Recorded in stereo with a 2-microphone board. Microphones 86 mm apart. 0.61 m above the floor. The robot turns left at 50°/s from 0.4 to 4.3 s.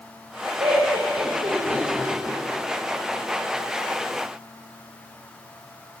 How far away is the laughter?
About 3 m.